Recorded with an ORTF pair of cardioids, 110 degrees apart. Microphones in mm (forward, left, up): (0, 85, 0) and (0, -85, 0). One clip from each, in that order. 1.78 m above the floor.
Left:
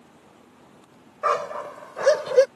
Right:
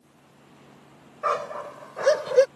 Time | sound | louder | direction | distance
1.2 | a dog barking | left 3 dB | 20° left | ?